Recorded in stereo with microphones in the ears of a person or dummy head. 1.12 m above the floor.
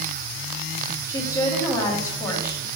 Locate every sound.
1.1 s a woman speaking: 25° left (ahead or behind), 1.8 m